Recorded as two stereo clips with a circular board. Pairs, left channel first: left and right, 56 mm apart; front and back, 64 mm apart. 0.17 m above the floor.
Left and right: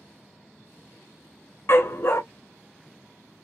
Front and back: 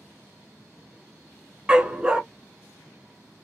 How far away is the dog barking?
About 0.7 m.